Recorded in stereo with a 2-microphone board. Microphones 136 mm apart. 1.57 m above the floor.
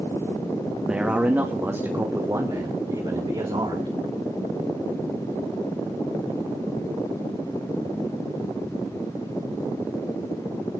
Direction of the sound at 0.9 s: 5° right (ahead or behind).